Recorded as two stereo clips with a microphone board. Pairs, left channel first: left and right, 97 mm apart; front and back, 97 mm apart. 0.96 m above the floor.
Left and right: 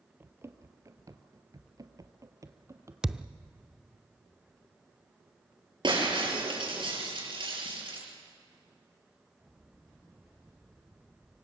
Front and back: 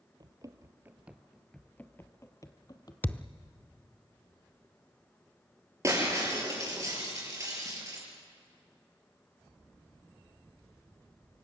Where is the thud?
20° right, 0.5 m.